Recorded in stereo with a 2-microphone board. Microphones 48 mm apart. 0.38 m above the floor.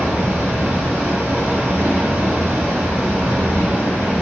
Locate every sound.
0.0 s running water: 50° right (ahead or behind), 1.0 m